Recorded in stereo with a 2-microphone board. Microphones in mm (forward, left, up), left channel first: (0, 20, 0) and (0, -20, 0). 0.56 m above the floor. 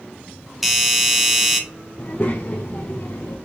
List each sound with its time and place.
0.6 s a doorbell: 5° right (ahead or behind), 1.0 m
2.0 s a child speaking: 45° left (ahead or behind), 0.6 m